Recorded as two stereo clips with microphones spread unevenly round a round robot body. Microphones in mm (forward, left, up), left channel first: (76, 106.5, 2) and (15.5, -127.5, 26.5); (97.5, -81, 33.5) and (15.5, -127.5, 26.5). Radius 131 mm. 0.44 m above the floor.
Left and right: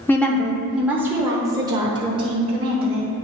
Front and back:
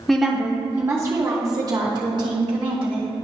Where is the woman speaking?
125° left, 0.8 m; by 3.1 s 175° right, 1.8 m.